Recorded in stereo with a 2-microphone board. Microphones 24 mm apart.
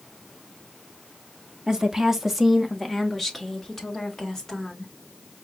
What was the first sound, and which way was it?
A woman speaking, 25° right (ahead or behind).